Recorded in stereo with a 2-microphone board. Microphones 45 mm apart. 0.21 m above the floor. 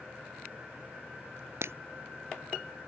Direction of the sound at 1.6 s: 70° right (ahead or behind).